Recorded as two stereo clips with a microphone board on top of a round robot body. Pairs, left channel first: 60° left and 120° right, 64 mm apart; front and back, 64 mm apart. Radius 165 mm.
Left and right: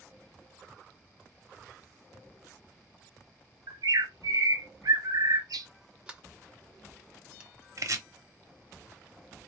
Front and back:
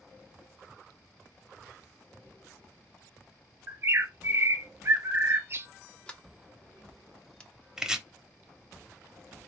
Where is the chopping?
100° right, 1.0 m.